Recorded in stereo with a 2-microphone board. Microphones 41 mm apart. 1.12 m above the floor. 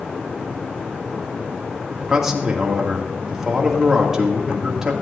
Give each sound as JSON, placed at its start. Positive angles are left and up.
{"t": 2.1, "sound": "a man speaking", "side_deg": -15, "distance_m": 2.5}